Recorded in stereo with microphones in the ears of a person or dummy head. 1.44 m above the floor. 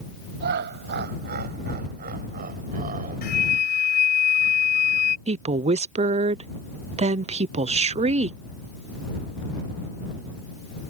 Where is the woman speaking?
30° right (ahead or behind).